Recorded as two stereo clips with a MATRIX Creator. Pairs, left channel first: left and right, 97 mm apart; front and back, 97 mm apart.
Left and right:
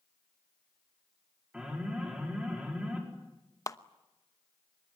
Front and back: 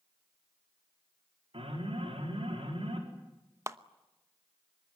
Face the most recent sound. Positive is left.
turn(degrees=130)